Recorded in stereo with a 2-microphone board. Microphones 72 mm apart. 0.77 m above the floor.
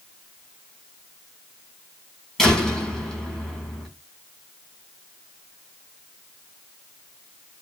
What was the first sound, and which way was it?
A door slam, 10° left (ahead or behind).